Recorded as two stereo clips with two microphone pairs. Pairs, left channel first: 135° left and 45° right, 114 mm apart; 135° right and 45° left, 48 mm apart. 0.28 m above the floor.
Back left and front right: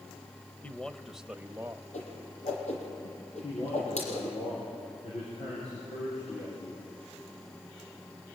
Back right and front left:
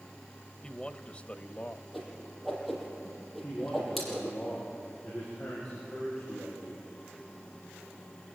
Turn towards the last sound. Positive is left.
turn(degrees=155)